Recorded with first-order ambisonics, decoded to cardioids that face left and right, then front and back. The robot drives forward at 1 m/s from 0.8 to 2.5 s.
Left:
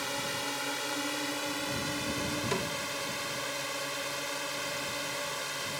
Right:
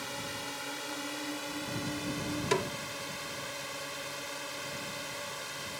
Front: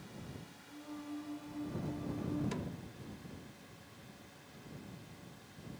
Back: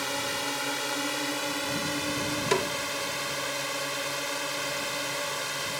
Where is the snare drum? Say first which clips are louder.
Right 5 dB, back 18 dB; 165° right.